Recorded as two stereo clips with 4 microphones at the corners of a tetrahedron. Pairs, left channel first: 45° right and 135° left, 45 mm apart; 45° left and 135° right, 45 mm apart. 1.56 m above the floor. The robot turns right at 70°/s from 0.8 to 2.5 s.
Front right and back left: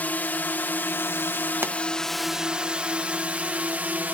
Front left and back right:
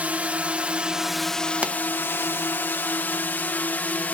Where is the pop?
165° left; by 1.8 s 175° left.